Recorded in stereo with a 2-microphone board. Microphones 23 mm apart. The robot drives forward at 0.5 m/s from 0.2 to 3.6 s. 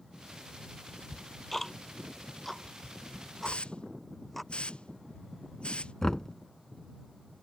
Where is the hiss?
50° left (ahead or behind).